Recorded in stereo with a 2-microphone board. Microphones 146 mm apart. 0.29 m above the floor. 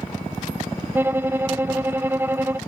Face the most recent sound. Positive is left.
turn(degrees=-15)  # may be behind; listen again after turning